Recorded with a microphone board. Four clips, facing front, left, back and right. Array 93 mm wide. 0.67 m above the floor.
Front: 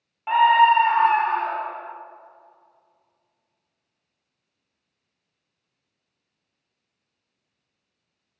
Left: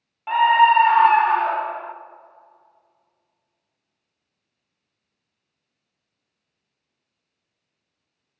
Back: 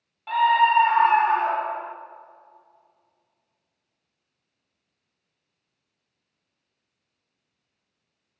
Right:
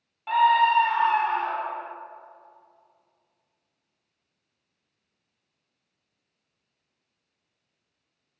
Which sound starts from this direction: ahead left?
A scream, at 0.3 s.